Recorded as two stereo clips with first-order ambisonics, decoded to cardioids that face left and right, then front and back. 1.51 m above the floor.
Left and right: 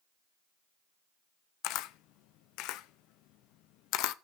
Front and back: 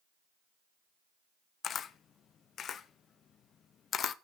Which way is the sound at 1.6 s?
60° left.